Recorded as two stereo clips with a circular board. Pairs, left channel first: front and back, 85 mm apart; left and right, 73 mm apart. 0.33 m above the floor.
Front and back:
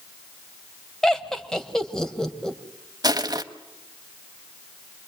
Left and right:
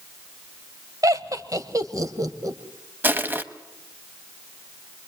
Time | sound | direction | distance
1.0 | laughter | 80° right | 1.5 m
3.0 | crushing | 150° right | 1.0 m